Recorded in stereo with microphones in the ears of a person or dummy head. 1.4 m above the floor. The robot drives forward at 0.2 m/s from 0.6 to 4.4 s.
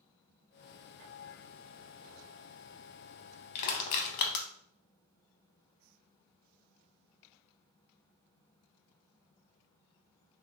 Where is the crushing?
55° left (ahead or behind), 0.7 m; by 4.5 s 60° left (ahead or behind), 0.6 m.